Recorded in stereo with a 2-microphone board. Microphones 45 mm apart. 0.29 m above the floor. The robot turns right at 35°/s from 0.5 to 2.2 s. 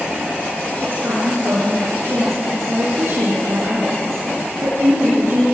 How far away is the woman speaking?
About 6 m.